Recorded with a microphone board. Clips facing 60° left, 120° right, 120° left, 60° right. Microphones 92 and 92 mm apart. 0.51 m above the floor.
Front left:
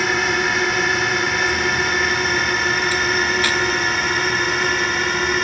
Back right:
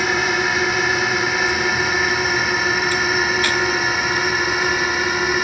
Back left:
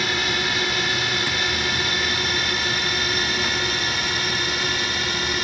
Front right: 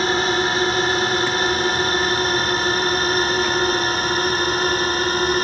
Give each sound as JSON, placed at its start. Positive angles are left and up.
{"t": 0.0, "sound": "a drone", "azimuth_deg": -35}